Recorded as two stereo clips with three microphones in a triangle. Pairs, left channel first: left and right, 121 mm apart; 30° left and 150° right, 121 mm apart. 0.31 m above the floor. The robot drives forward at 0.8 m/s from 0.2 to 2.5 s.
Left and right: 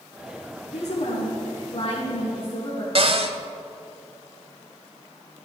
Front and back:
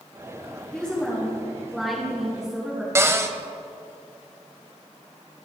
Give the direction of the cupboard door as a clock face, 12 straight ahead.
3 o'clock.